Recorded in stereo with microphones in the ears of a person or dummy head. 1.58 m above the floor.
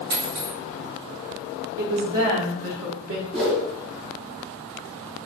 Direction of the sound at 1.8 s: 65° right (ahead or behind).